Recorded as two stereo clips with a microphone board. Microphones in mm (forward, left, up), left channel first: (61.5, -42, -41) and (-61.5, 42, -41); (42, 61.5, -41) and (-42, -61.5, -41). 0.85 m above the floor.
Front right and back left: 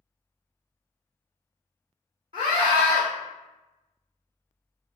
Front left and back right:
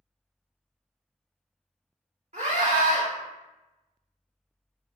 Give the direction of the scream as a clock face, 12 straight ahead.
5 o'clock.